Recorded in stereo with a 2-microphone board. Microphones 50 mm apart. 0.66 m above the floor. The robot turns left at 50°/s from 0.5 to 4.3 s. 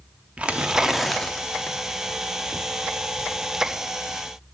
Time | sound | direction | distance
0.4 | tearing paper | 150° right | 0.6 m